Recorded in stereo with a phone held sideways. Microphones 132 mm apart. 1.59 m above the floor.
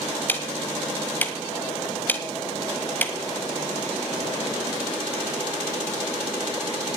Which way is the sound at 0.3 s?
15° left (ahead or behind).